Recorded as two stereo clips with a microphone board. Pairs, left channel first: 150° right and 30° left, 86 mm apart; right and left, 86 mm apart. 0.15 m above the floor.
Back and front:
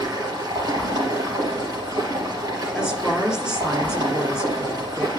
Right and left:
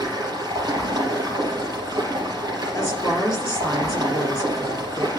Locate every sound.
0.0 s running water: 60° left, 3.5 m
2.8 s a woman speaking: 50° right, 2.5 m